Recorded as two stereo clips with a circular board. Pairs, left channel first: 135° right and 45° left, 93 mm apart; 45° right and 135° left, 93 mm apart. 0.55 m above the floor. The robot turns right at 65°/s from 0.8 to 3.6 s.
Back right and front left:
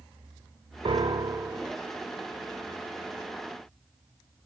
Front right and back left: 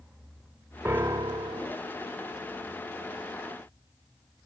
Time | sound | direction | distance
0.8 | a piano | 70° left | 0.7 m